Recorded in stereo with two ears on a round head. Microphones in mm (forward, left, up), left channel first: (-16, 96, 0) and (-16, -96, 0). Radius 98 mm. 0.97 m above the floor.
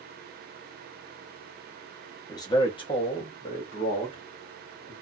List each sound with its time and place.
2.3 s a man speaking: 20° left (ahead or behind), 0.8 m; by 4.9 s 25° left (ahead or behind), 1.6 m